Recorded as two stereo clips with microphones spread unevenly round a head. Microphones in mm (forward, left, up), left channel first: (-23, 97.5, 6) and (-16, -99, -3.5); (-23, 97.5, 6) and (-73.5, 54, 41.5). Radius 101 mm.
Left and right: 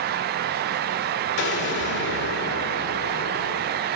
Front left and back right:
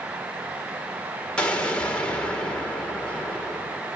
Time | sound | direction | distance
1.4 | an explosion | 125° left | 2 m